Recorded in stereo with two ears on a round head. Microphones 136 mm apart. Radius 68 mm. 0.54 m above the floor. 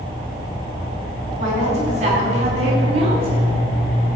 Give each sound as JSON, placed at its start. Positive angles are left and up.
{"t": 1.4, "sound": "a woman speaking", "side_deg": -45, "distance_m": 4.5}